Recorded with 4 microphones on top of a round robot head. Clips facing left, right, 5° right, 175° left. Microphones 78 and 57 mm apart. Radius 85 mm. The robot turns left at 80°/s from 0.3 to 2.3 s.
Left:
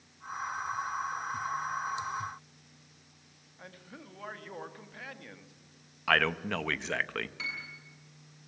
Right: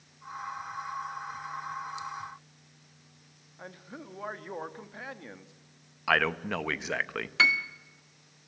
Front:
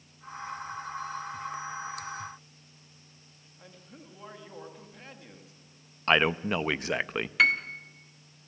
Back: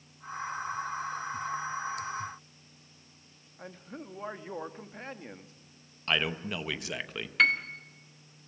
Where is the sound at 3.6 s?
150° right, 1.7 m.